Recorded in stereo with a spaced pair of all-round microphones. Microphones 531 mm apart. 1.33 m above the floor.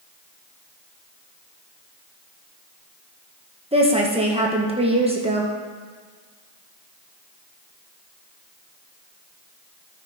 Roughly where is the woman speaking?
Centre.